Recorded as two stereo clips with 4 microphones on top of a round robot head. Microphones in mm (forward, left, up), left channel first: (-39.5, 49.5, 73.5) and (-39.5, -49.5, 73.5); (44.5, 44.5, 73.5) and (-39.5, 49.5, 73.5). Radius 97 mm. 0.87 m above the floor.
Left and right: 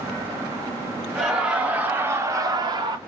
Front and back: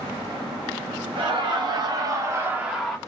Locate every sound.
1.1 s laughter: 175° right, 1.6 m; by 3.0 s 85° right, 0.9 m